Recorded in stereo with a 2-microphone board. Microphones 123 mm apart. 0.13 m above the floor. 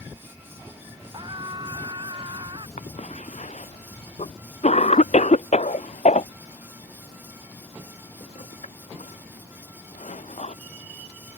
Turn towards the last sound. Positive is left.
turn(degrees=65)  # may be behind; listen again after turning